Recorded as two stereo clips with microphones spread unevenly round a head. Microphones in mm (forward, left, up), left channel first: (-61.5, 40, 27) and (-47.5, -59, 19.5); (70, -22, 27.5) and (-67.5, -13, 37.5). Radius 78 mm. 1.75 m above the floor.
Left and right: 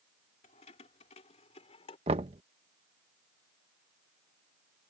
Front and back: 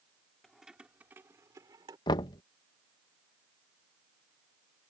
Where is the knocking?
60° right.